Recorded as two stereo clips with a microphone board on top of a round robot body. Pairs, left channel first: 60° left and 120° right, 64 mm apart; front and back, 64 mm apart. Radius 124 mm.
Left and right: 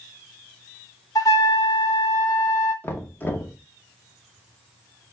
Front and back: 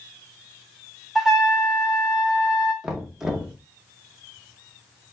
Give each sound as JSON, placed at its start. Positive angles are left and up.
{"t": 1.1, "sound": "a trumpet", "azimuth_deg": 95, "distance_m": 0.6}
{"t": 2.8, "sound": "knocking", "azimuth_deg": 100, "distance_m": 1.1}